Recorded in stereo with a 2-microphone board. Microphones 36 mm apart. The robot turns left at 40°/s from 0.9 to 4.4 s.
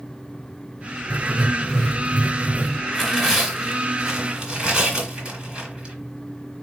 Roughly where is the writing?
Ahead.